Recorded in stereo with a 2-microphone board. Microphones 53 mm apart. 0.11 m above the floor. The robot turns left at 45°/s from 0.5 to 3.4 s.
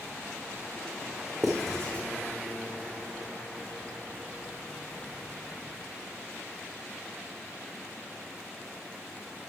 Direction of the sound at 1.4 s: 5° right (ahead or behind).